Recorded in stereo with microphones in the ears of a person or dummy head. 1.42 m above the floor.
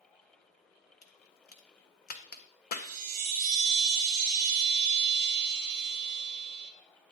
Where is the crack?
40° left (ahead or behind), 0.9 m.